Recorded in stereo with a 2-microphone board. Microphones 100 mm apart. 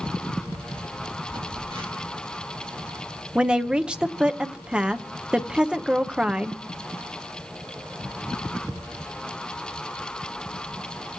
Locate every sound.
1.3 s a phone buzzing: 60° right (ahead or behind), 3 m
3.4 s a woman speaking: 10° right (ahead or behind), 0.8 m